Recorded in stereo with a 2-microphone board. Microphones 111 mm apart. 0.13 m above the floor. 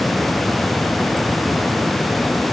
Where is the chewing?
No chewing in this recording.